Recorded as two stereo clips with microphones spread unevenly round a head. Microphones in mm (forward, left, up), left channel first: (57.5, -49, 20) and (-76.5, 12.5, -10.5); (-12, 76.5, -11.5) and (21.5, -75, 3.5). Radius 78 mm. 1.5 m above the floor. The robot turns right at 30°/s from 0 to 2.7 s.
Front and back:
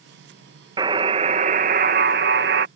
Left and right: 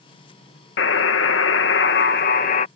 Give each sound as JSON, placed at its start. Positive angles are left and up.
{"t": 0.8, "sound": "a buzzer", "azimuth_deg": 90}